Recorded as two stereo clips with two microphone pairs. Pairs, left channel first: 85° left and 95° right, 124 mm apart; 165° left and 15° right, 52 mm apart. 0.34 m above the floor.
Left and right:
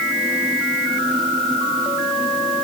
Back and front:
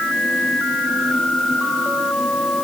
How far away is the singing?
No singing in this recording.